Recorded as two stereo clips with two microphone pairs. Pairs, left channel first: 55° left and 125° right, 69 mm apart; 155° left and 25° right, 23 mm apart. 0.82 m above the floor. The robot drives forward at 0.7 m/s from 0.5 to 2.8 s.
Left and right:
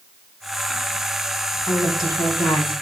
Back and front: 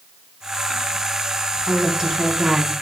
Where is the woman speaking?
45° left, 7 m; by 2.7 s 50° left, 6.5 m.